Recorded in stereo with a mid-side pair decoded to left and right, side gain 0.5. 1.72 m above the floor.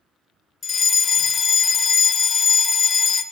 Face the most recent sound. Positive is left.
turn(degrees=35)